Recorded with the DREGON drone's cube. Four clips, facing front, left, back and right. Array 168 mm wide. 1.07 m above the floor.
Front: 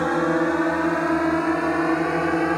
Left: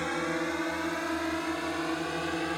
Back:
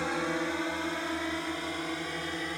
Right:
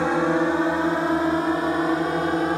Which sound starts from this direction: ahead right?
A drone, at 0.0 s.